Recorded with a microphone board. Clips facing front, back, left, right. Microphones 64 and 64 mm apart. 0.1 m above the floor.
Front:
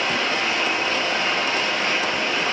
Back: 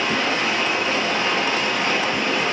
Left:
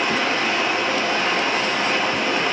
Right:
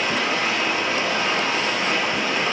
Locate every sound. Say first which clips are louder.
0.0 s running water: back 1 dB, left 2 dB; 120° left, 0.8 m